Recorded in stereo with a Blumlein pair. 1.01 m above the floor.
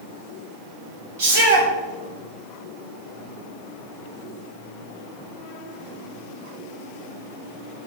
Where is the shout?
55° right, 3 m.